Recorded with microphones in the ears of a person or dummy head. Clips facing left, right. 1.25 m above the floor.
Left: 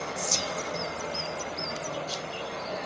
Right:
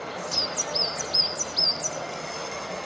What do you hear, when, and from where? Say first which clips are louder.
0.2 s whispering: even; 65° left (ahead or behind), 0.7 m